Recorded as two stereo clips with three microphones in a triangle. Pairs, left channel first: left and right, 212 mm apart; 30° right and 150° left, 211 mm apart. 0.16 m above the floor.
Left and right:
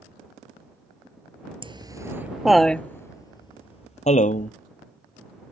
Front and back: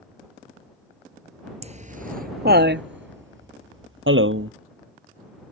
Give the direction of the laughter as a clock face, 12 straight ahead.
5 o'clock.